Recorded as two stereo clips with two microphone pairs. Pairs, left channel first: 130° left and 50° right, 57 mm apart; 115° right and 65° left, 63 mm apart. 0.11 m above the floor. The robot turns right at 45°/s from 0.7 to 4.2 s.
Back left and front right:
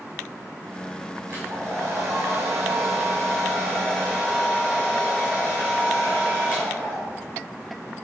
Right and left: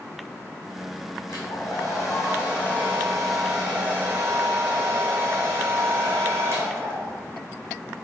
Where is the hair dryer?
115° right, 2.5 m; by 7.2 s 15° left, 2.5 m.